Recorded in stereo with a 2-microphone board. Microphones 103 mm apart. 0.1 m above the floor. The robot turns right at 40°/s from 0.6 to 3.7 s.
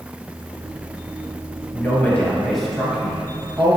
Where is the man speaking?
140° left, 1.8 m; by 3.8 s 140° right, 1.8 m.